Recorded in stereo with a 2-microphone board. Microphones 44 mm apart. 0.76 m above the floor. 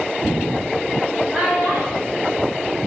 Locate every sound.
1.3 s a child speaking: 30° right (ahead or behind), 1.4 m